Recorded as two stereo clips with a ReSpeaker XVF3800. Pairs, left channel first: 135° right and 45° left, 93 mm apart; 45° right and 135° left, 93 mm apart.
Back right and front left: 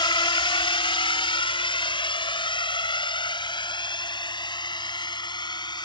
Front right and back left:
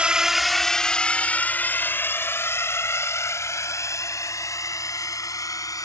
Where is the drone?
150° right; by 5.8 s 95° right.